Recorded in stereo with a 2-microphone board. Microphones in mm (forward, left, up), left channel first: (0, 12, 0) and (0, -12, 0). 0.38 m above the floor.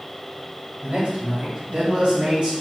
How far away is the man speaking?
About 1.7 m.